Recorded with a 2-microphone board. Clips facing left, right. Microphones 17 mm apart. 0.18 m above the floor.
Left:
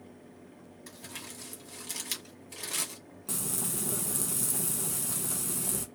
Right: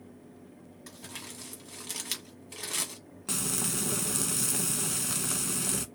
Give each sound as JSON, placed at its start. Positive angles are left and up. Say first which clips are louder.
{"t": 0.9, "sound": "crumpling", "louder": "right 1 dB", "side_deg": -20, "distance_m": 1.4}
{"t": 3.3, "sound": "frying", "louder": "right 4 dB", "side_deg": -55, "distance_m": 0.6}